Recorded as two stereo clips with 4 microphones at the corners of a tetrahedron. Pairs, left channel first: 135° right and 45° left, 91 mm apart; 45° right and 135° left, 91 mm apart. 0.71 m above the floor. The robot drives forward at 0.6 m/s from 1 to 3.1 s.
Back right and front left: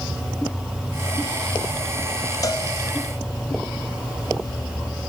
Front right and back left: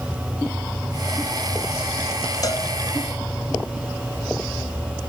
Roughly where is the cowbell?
Right.